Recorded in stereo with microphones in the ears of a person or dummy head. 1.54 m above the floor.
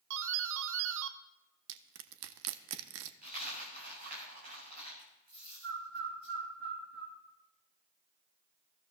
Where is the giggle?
I don't hear a giggle.